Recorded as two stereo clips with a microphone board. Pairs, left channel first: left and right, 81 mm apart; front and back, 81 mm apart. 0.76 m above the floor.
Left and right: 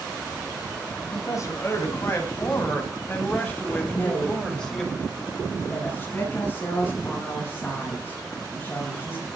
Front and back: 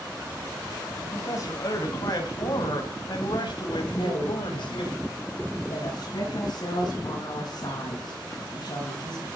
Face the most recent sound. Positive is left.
turn(degrees=25)